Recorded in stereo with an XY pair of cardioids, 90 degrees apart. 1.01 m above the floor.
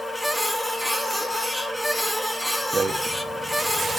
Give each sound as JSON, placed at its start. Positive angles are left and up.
{"t": 0.0, "sound": "a machine running", "azimuth_deg": 0, "distance_m": 1.3}
{"t": 2.7, "sound": "a rattle", "azimuth_deg": -40, "distance_m": 1.2}